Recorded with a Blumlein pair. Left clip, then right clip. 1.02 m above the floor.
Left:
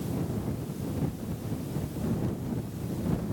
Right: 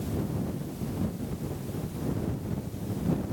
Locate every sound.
Only background noise.